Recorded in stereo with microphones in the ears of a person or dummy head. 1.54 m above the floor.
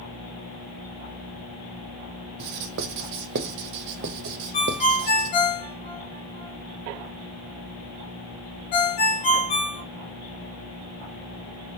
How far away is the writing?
About 0.5 m.